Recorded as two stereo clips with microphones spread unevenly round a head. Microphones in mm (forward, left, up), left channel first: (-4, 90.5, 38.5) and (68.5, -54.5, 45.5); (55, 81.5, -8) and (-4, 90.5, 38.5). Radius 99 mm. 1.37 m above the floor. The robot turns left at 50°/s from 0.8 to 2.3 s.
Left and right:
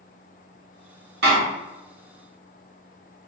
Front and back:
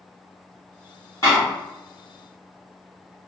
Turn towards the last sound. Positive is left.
turn(degrees=-155)